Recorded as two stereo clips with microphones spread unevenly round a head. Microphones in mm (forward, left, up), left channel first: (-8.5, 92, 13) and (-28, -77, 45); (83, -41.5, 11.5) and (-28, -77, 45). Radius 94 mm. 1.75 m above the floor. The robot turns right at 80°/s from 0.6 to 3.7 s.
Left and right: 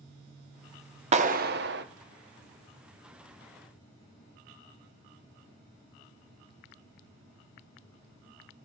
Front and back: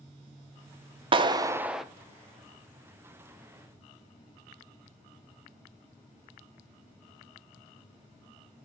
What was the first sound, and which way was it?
A clap, 140° right.